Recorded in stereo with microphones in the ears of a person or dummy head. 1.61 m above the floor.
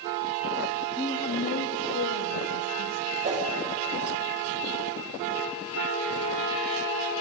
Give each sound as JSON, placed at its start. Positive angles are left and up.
{"t": 1.0, "sound": "a woman speaking", "side_deg": 15, "distance_m": 0.8}
{"t": 3.2, "sound": "a whoosh", "side_deg": -30, "distance_m": 5.0}